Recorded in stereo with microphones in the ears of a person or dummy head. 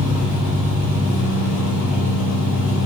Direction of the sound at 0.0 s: 5° right (ahead or behind).